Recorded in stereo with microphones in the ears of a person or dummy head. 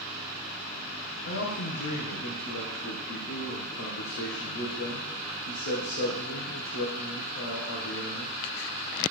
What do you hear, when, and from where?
1.2 s a man speaking: 65° left (ahead or behind), 1.5 m